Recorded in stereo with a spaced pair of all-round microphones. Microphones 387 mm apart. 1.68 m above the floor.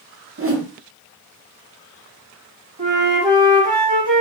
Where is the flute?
50° right (ahead or behind), 1.6 m.